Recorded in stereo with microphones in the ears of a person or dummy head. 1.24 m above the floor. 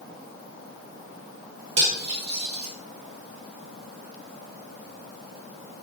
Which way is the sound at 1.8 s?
35° right (ahead or behind).